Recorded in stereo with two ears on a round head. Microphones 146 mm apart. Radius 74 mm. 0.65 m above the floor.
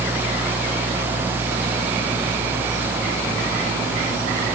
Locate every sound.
Only background noise.